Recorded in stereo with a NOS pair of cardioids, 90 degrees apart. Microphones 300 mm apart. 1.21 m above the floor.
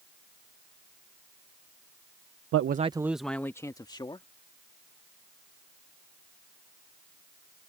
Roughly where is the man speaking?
Ahead right.